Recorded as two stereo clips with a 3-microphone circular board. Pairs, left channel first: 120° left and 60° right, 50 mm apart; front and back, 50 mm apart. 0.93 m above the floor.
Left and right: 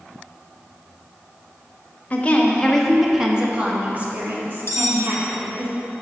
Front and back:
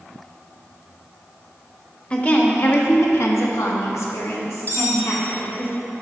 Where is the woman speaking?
60° left, 1.2 m; by 5.7 s 30° right, 2.5 m.